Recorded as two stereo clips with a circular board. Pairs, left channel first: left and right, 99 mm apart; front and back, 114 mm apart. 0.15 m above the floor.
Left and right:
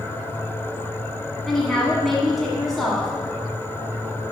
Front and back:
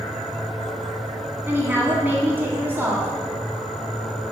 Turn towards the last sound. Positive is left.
turn(degrees=170)